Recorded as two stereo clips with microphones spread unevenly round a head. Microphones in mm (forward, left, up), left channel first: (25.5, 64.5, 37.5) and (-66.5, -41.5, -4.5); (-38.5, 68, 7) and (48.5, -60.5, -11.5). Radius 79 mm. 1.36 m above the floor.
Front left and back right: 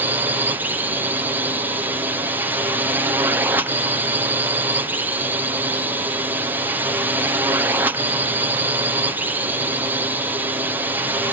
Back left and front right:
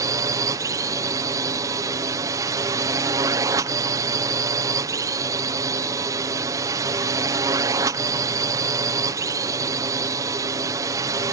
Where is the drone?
100° right.